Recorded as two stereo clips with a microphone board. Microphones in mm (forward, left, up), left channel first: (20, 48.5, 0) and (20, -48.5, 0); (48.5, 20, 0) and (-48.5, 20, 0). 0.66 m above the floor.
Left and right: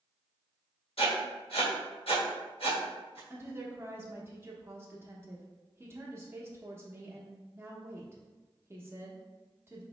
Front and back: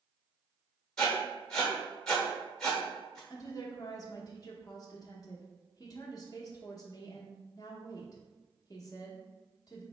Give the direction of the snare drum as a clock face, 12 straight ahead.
No snare drum in this recording.